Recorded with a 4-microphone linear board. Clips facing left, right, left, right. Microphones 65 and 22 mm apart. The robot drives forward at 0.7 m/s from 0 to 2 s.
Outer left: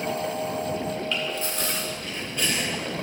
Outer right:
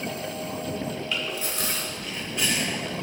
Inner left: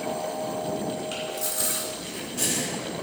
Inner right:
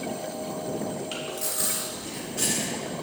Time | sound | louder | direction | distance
1.1 | chewing | outer left 2 dB, inner left 1 dB | 15° right (ahead or behind) | 3 m